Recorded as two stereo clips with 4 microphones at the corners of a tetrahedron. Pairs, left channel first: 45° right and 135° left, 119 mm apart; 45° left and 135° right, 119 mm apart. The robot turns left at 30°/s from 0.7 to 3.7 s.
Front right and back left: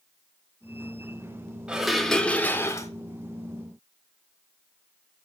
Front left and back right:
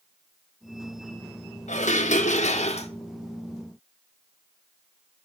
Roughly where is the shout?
I don't hear a shout.